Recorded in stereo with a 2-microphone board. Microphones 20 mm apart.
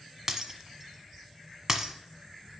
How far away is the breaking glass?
About 1.1 m.